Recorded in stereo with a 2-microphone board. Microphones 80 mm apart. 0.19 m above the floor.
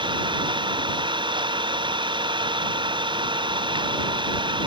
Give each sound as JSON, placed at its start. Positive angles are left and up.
{"t": 0.0, "sound": "an engine running", "side_deg": -80}